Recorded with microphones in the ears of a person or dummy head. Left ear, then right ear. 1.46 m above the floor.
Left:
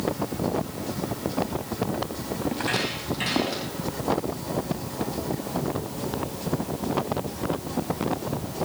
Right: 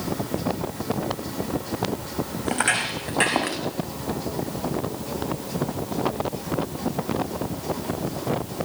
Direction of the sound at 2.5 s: 45° right (ahead or behind).